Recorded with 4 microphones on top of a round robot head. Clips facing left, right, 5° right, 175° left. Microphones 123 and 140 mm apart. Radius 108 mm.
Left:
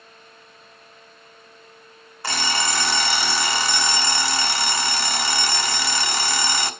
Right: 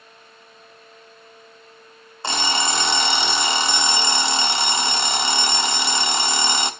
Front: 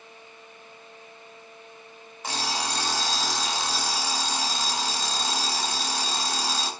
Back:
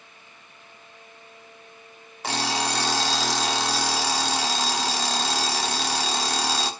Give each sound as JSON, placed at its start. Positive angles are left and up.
{"t": 2.2, "sound": "an alarm clock", "azimuth_deg": -160, "distance_m": 1.1}